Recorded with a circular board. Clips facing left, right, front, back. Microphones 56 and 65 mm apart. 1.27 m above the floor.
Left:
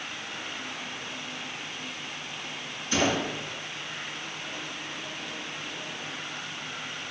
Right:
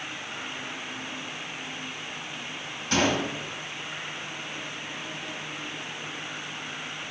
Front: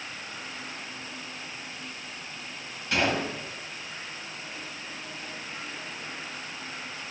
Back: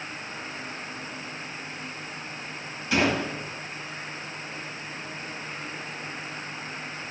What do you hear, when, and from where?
2.9 s a gunshot: 90° right, 4 m